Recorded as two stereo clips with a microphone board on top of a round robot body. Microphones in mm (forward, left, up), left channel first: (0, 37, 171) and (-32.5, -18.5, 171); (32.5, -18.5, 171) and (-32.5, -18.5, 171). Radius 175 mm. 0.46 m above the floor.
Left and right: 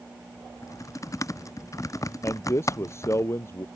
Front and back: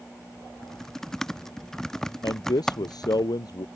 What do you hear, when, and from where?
0.6 s typing on a keyboard: 80° left
2.2 s a man speaking: 15° left